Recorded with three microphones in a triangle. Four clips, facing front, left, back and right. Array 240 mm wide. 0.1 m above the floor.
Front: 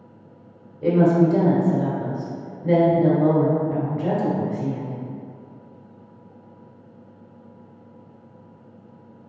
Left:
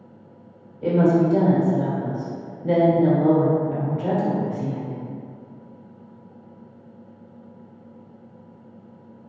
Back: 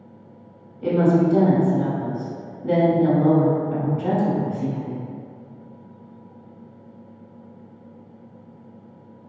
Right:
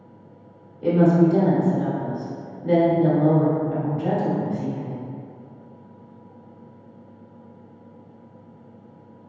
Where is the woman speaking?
10° left, 1.3 m.